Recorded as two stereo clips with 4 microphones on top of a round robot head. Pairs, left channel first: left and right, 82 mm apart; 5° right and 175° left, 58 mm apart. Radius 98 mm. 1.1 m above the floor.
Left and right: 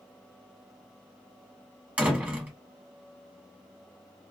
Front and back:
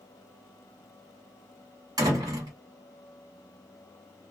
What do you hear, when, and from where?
2.0 s a door slam: 165° right, 1.7 m